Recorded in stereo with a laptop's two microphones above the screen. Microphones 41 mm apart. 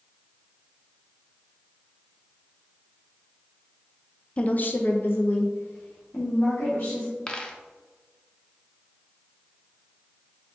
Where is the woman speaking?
30° left (ahead or behind), 0.5 m; by 7.2 s 60° left (ahead or behind), 2 m.